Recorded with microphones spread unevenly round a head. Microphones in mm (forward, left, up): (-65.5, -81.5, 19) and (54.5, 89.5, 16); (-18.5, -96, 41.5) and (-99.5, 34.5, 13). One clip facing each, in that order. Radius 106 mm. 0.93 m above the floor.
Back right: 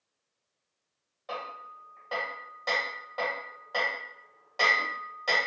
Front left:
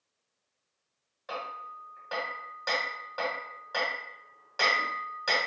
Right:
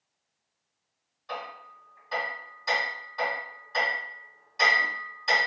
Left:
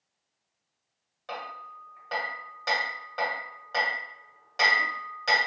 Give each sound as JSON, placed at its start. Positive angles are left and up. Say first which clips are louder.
{"t": 1.3, "sound": "hammering", "louder": "even, right 1 dB", "azimuth_deg": 130, "distance_m": 1.3}